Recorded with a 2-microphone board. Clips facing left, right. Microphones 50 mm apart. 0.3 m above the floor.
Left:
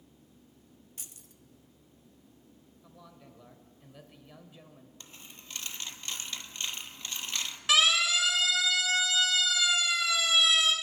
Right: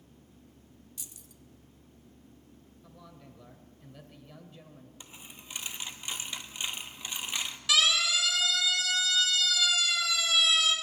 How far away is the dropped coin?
About 0.8 m.